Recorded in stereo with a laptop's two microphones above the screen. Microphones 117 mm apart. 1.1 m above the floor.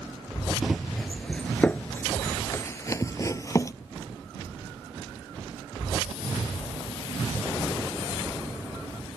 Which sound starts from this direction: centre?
Running footsteps, at 0.6 s.